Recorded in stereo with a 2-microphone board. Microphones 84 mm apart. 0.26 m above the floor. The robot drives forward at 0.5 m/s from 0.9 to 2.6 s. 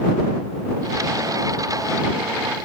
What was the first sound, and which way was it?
Only background noise.